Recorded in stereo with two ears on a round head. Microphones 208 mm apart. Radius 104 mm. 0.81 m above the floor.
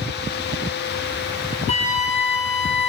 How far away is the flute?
About 3.5 m.